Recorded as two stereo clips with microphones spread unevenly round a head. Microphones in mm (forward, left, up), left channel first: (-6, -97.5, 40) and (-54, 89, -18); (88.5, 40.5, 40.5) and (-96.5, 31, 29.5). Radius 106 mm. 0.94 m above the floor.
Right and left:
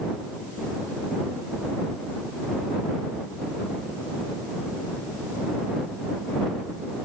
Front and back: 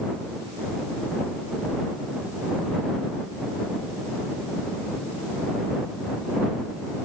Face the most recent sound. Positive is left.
No sound to turn to.